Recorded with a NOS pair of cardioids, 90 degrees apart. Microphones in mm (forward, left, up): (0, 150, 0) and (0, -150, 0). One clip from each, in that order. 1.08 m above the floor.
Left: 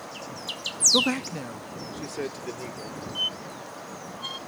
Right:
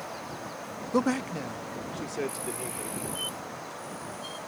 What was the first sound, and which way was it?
A man speaking, straight ahead.